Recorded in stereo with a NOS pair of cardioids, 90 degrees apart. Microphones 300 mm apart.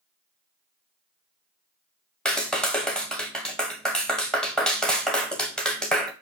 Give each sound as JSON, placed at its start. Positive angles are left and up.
{"t": 2.2, "sound": "a clap", "azimuth_deg": 5, "distance_m": 1.2}